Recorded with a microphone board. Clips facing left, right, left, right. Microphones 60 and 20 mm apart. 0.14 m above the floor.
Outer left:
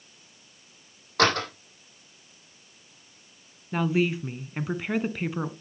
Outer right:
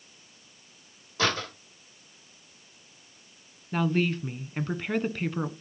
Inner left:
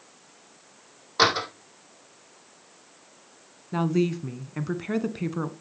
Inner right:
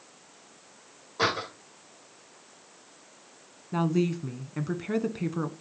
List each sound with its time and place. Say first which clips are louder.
1.2 s a door slam: outer left 5 dB, inner left 6 dB; 70° left (ahead or behind), 5 m
3.7 s a woman speaking: outer left 1 dB, inner left 2 dB; 10° left (ahead or behind), 1.0 m